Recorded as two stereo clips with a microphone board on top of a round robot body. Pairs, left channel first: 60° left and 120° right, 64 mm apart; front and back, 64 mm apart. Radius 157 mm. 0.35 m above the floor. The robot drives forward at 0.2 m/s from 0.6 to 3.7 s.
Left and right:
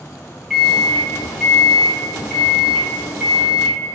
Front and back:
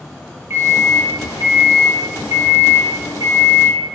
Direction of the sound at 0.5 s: 145° left.